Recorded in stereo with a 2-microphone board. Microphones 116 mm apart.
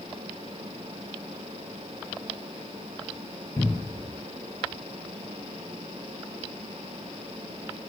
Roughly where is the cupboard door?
Left.